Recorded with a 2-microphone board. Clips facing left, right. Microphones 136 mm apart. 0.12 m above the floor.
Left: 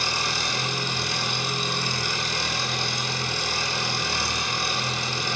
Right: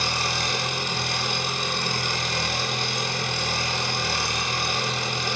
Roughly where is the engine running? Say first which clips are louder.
Right 1 dB; right.